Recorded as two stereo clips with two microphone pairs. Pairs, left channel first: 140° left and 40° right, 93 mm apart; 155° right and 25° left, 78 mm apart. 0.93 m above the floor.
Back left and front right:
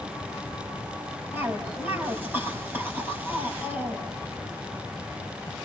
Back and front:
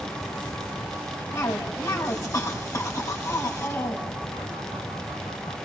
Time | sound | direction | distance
1.3 | a cough | 105° right | 6 m